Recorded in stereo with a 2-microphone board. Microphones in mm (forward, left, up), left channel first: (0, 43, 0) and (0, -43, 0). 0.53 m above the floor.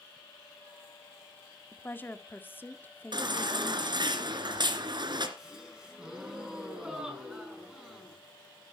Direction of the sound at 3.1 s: 55° right (ahead or behind).